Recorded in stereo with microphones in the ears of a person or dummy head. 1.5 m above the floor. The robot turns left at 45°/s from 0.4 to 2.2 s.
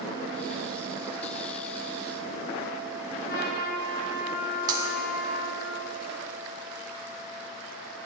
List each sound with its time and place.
3.2 s a trumpet: 50° left (ahead or behind), 6 m
4.7 s breaking glass: 30° right (ahead or behind), 3 m